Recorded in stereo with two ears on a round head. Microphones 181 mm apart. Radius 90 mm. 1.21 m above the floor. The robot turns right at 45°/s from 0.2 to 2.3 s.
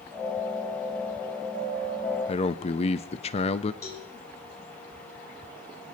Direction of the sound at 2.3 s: 30° left (ahead or behind).